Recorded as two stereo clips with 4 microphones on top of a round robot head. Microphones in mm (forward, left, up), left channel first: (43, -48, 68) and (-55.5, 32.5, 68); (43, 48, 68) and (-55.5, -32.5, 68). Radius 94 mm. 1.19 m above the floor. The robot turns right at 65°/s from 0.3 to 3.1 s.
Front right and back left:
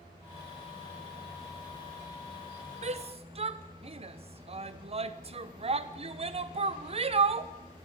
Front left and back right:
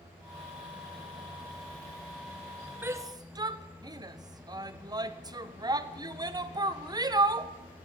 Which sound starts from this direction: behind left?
A shout, at 2.8 s.